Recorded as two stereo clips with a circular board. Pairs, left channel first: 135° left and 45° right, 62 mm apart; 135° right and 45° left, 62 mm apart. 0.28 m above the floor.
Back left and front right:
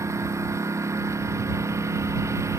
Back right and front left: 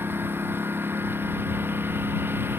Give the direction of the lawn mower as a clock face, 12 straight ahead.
12 o'clock.